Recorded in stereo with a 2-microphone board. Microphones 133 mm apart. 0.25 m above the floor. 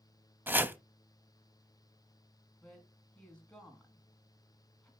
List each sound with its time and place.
0.5 s chopping: 15° right (ahead or behind), 0.5 m
2.6 s a woman speaking: 5° left (ahead or behind), 2 m